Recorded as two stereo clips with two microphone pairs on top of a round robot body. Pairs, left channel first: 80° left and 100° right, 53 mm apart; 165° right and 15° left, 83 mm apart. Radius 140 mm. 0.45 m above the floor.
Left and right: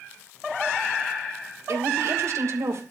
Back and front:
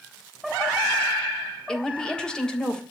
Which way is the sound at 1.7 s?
90° right.